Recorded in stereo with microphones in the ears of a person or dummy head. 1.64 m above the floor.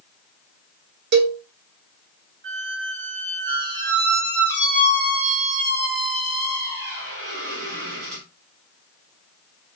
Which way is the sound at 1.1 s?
60° right (ahead or behind).